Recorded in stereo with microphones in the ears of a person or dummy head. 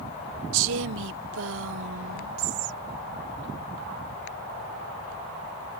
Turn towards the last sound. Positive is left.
turn(degrees=-70)  # may be behind; listen again after turning